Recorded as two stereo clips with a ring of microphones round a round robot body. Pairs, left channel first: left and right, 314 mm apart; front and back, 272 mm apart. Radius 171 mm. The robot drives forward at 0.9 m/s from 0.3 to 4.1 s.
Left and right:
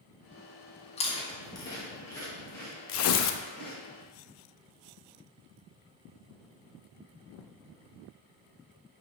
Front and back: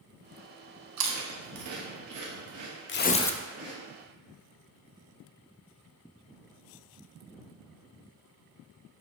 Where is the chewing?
160° left, 0.9 m; by 3.7 s 175° left, 3.5 m.